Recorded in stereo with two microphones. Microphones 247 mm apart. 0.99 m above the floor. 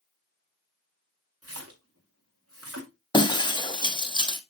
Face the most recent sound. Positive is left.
turn(degrees=20)  # may be behind; listen again after turning